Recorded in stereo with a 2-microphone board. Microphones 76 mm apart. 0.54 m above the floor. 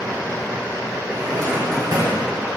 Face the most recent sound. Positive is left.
turn(degrees=-65)  # may be behind; listen again after turning